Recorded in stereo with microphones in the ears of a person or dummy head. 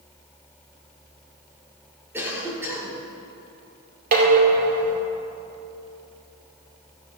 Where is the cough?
15° right (ahead or behind), 3.5 m.